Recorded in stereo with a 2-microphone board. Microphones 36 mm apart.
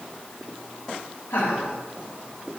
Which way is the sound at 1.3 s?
90° left.